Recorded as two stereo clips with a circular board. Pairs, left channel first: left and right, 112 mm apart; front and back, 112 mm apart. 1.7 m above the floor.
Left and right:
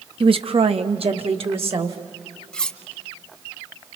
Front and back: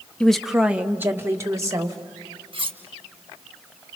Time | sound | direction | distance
0.2 | a woman speaking | 80° right | 0.8 m
2.5 | cutlery clinking | 170° left | 1.1 m